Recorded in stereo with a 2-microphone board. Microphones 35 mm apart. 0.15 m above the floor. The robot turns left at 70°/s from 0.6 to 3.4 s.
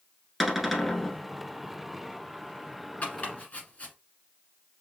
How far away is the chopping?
About 1.4 m.